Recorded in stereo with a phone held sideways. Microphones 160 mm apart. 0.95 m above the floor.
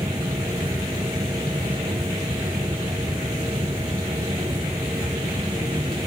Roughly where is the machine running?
Right.